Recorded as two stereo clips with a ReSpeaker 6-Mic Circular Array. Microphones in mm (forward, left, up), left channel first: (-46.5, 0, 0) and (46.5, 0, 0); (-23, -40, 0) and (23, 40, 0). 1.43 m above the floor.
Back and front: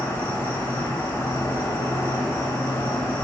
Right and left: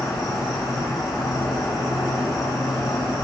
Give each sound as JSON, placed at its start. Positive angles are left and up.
{"t": 0.0, "sound": "an insect", "azimuth_deg": -130, "distance_m": 1.0}